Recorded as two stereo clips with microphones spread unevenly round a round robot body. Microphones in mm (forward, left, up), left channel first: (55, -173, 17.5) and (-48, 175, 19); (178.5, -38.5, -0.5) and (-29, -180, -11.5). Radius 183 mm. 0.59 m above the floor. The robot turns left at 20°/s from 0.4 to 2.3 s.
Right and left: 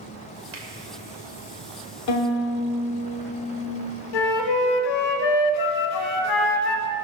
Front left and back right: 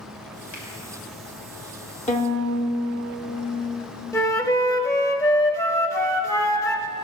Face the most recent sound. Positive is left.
turn(degrees=-45)